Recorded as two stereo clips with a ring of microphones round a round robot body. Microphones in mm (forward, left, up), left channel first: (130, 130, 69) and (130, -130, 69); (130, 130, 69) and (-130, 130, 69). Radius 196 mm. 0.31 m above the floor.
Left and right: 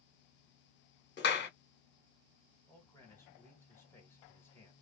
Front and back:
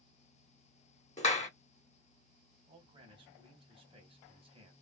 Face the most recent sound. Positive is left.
turn(degrees=155)